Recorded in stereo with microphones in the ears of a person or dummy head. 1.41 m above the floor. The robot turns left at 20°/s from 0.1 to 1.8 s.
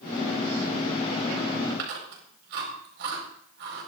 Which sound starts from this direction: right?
Chewing, at 1.7 s.